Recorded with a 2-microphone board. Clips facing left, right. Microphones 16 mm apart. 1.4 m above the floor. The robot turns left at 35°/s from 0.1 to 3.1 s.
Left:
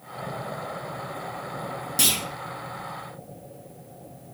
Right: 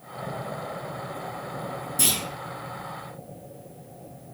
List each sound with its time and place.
2.0 s a clunk: 75° left (ahead or behind), 1.0 m; by 2.2 s 80° left, 1.0 m